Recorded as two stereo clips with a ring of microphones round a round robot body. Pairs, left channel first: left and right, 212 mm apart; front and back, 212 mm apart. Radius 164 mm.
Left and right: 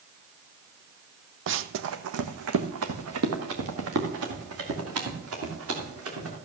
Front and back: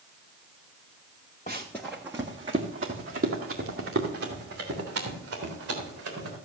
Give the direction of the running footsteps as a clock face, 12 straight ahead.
2 o'clock.